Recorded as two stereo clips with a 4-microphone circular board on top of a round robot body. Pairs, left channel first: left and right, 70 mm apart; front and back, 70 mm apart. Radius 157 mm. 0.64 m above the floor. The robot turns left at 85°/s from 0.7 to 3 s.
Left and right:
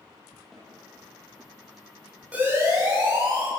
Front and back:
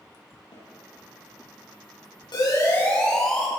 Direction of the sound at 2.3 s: 20° right.